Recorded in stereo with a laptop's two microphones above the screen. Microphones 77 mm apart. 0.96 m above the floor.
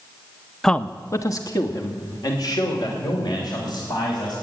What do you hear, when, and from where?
0.6 s a man speaking: 5° left (ahead or behind), 0.6 m; by 4.3 s 65° left (ahead or behind), 5.5 m